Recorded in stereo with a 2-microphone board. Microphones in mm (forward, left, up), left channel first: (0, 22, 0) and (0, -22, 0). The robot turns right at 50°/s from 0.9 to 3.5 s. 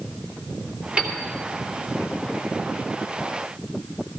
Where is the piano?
20° right (ahead or behind), 2.5 m; by 1.2 s 10° right (ahead or behind), 2.5 m.